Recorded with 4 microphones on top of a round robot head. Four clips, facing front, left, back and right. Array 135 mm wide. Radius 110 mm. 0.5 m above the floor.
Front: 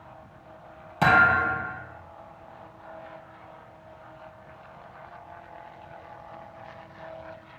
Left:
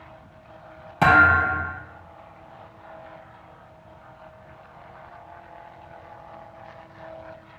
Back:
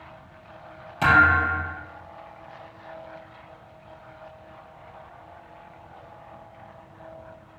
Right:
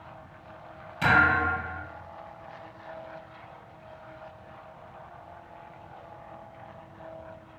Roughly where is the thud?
Left.